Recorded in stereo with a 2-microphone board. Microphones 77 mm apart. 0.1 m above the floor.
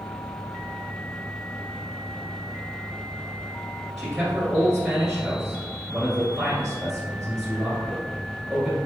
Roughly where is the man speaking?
Centre.